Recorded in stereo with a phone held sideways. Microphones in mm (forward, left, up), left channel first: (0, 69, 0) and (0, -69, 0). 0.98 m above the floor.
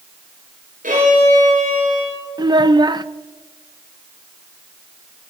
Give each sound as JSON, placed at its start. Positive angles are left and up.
{"t": 0.8, "sound": "a violin", "side_deg": -80, "distance_m": 8.0}
{"t": 2.4, "sound": "a child speaking", "side_deg": -30, "distance_m": 0.6}